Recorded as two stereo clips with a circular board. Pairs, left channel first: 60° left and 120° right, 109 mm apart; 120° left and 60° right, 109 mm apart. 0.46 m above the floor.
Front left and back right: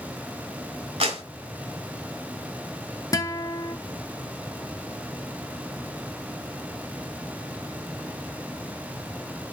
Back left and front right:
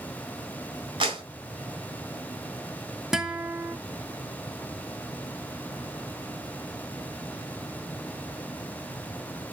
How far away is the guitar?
About 0.8 m.